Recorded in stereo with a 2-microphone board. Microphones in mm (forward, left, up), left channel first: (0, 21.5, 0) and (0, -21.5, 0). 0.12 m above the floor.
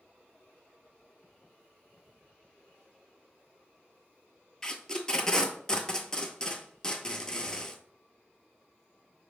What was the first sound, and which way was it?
Tape being pulled, 15° left (ahead or behind).